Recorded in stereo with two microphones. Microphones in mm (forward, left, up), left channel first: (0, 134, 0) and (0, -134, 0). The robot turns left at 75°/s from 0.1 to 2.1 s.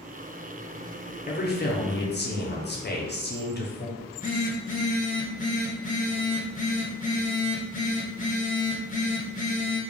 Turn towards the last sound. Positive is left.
turn(degrees=30)  # may be behind; listen again after turning